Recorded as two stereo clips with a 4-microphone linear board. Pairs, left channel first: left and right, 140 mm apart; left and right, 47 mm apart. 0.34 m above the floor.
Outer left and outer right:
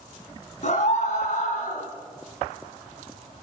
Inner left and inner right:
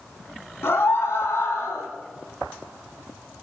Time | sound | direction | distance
0.6 | a scream | 60° left (ahead or behind) | 3.5 m